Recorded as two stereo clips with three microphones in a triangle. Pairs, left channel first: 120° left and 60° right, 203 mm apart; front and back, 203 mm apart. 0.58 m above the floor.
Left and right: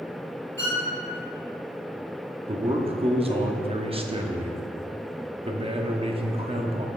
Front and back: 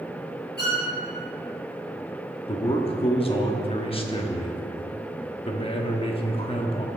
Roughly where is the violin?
Ahead right.